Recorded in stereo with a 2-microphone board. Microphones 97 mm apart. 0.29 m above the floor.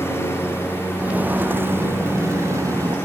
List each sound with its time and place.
0.0 s a lawn mower: 25° left (ahead or behind); by 3.1 s 20° left (ahead or behind)
1.0 s footsteps: 15° right (ahead or behind); by 3.0 s 35° right (ahead or behind)